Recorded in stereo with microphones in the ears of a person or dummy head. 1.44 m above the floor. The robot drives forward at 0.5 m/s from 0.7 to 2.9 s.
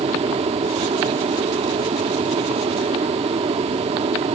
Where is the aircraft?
25° right (ahead or behind).